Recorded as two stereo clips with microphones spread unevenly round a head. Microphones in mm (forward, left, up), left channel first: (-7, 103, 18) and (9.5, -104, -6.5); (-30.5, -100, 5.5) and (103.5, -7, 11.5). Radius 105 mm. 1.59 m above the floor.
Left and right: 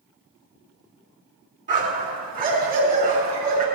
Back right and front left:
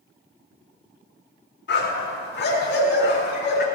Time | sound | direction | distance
1.7 | a dog barking | 140° right | 4.5 m